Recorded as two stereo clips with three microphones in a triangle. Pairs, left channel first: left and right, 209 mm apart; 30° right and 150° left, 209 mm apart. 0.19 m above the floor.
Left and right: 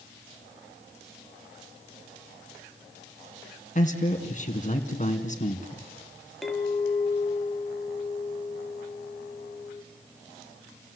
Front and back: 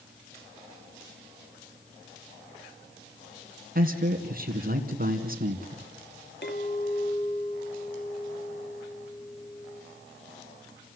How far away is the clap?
I don't hear a clap.